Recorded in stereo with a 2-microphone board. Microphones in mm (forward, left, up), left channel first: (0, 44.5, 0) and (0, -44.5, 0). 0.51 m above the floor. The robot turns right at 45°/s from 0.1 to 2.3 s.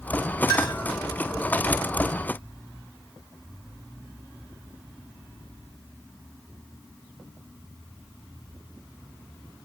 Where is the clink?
55° left (ahead or behind), 1.0 m; by 0.8 s 40° left (ahead or behind), 1.0 m.